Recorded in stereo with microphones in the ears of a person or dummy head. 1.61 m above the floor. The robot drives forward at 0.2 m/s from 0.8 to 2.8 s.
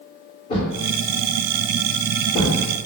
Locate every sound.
0.5 s a thud: 40° left (ahead or behind), 1.8 m; by 2.6 s 35° left (ahead or behind), 2 m